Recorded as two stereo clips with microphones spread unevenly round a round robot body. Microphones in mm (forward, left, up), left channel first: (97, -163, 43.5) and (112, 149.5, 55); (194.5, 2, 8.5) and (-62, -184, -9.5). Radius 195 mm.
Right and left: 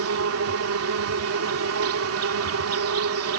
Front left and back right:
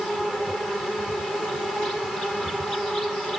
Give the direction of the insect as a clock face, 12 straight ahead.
8 o'clock.